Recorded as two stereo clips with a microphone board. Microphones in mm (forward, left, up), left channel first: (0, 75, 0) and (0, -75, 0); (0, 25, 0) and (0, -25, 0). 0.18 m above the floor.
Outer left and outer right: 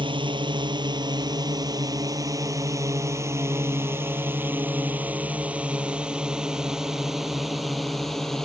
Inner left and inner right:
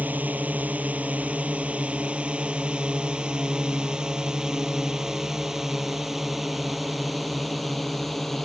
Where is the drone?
35° right (ahead or behind); by 8.4 s centre (ahead or behind).